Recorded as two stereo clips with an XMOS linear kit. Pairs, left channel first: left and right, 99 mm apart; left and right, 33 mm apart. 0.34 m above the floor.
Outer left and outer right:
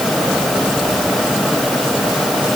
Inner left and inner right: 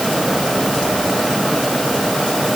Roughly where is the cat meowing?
I don't hear a cat meowing.